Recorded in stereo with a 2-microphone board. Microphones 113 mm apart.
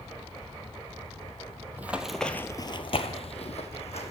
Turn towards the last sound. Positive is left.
turn(degrees=65)  # may be behind; listen again after turning